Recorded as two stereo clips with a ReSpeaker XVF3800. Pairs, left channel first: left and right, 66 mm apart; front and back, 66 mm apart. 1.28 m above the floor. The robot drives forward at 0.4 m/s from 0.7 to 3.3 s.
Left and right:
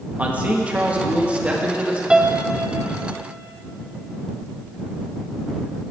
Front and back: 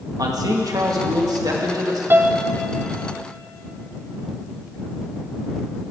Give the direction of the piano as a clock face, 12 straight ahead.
5 o'clock.